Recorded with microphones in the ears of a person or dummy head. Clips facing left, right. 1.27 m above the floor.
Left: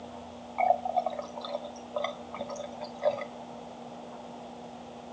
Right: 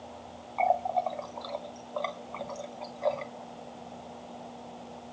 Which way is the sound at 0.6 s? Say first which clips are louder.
Left 1 dB; 10° left (ahead or behind).